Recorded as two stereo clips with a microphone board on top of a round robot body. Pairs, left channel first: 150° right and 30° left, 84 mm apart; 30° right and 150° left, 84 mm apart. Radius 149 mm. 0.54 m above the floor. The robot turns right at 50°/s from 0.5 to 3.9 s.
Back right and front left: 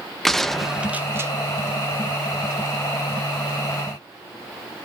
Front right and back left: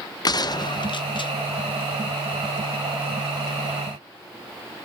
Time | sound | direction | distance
0.2 | a gunshot | 65° right | 0.8 m